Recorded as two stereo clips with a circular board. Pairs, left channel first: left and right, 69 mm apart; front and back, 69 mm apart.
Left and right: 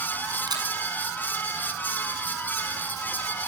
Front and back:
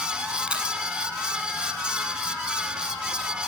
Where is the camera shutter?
105° right, 7.5 m.